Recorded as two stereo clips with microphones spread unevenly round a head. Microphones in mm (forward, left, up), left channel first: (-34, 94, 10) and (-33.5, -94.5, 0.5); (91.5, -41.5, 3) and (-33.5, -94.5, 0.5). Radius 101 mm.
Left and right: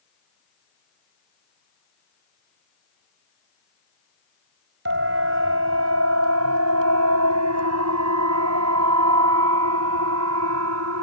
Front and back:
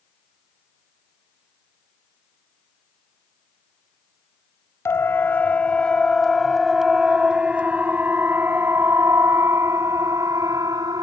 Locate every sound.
4.8 s a siren: 50° right; by 11.0 s 90° right